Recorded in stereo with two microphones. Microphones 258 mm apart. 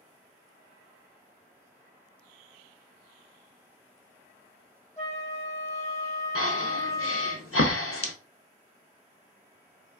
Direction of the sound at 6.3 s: 55° left (ahead or behind).